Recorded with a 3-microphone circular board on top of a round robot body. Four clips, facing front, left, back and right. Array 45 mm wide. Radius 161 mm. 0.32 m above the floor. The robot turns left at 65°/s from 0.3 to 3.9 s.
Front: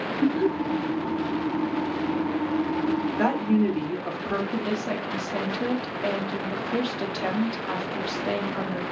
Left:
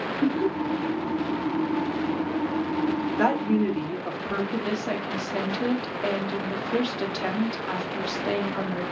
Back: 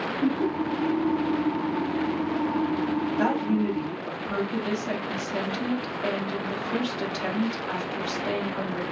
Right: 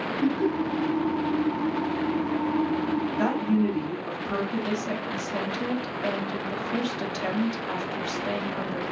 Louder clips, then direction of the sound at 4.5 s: Left 1 dB, front 1 dB; 75° left.